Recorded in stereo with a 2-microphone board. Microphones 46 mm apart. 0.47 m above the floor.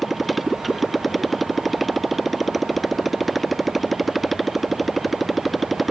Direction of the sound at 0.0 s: 5° right (ahead or behind).